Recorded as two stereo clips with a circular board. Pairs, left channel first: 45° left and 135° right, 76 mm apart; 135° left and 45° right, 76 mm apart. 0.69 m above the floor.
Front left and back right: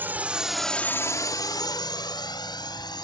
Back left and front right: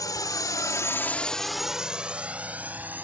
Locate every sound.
0.0 s a drone: 165° left; by 3.0 s 20° left